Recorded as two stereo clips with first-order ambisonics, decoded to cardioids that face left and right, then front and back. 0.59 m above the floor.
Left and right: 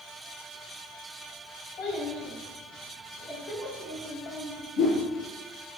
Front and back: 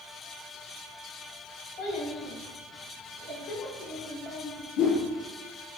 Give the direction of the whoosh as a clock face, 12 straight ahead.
10 o'clock.